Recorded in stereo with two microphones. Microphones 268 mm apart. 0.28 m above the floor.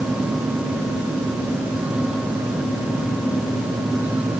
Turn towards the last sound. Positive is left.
No sound to turn to.